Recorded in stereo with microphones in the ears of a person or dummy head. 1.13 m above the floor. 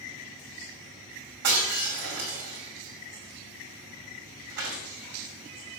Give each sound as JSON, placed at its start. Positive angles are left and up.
{"t": 1.4, "sound": "breaking glass", "side_deg": -65, "distance_m": 6.5}